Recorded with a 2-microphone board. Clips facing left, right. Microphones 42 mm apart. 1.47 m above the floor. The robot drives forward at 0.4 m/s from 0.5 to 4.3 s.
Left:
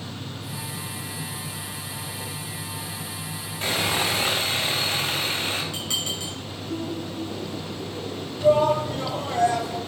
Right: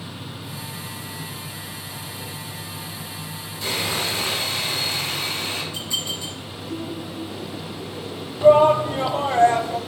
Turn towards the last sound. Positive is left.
turn(degrees=-35)  # may be behind; listen again after turning